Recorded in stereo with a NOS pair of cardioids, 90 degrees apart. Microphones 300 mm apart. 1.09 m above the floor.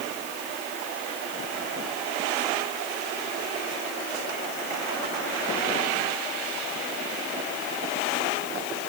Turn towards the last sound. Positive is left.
No sound to turn to.